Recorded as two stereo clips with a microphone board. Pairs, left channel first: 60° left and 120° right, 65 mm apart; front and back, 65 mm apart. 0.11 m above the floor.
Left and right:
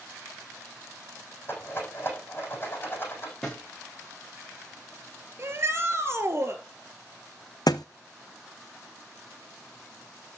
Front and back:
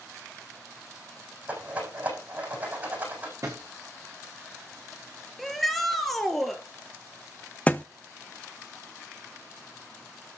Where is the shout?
90° right, 1.9 m.